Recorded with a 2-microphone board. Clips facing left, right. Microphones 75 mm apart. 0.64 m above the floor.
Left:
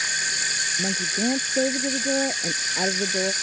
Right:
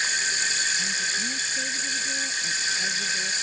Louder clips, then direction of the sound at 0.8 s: Left 4 dB; 70° left (ahead or behind).